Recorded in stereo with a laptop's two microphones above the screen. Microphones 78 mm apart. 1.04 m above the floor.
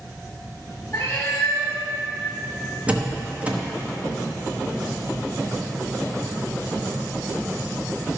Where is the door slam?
20° right (ahead or behind), 0.9 m.